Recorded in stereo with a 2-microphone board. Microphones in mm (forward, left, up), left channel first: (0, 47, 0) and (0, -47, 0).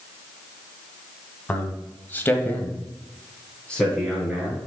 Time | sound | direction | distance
1.5 | a man speaking | 15° left (ahead or behind) | 1.5 m